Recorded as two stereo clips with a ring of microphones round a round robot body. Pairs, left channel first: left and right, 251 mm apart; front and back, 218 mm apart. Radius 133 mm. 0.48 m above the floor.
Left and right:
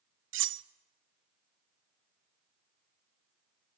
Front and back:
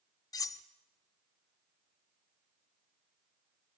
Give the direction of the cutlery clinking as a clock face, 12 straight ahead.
2 o'clock.